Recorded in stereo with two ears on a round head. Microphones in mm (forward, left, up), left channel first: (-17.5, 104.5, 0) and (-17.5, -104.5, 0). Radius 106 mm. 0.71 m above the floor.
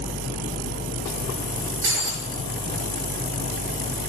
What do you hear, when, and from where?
1.8 s breaking glass: 60° right (ahead or behind), 4 m